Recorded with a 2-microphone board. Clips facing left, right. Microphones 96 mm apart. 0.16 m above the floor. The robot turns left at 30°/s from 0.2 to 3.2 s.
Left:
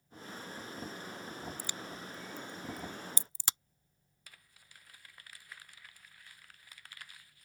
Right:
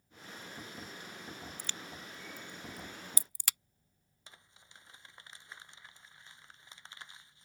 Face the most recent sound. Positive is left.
turn(degrees=-25)  # may be behind; listen again after turning